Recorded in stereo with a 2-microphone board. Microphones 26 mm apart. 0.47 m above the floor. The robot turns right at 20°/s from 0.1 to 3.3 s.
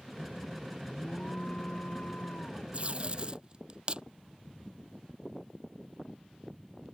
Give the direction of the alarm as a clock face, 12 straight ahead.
11 o'clock.